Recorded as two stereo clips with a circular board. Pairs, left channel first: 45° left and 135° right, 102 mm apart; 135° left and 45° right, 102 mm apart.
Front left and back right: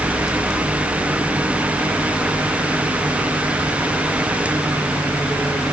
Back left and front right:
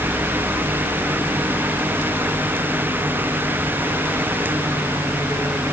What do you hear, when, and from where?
Only background noise.